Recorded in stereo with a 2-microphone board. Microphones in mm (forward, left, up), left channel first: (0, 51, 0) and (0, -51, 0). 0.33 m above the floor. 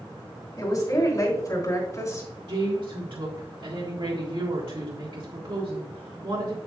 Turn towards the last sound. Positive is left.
turn(degrees=-70)  # may be behind; listen again after turning